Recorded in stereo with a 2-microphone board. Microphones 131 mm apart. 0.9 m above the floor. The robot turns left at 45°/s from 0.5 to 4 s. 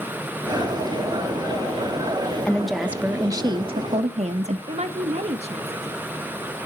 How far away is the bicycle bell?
No bicycle bell in this recording.